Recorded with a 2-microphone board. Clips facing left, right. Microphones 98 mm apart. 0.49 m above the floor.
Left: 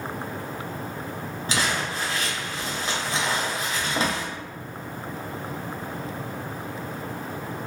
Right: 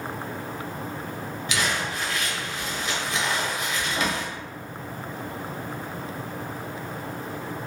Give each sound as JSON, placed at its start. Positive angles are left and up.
{"t": 1.5, "sound": "crumpling", "side_deg": 35, "distance_m": 0.7}